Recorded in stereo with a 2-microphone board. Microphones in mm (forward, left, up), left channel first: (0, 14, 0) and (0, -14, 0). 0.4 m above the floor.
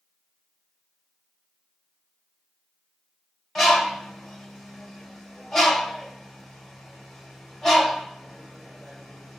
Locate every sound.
3.5 s a bird: 15° left (ahead or behind), 1.7 m